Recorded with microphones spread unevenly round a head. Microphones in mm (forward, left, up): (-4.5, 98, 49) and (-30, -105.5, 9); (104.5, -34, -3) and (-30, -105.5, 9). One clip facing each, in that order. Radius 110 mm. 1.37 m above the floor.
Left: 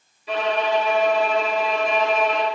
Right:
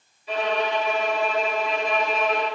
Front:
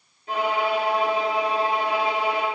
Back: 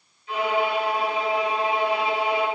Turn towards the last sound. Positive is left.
turn(degrees=70)